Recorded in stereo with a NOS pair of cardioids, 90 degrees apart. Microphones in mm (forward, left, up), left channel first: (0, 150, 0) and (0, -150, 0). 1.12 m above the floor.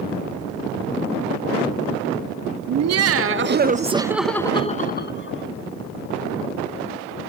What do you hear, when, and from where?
2.7 s laughter: 60° right, 1.9 m; by 5.5 s 45° left, 1.9 m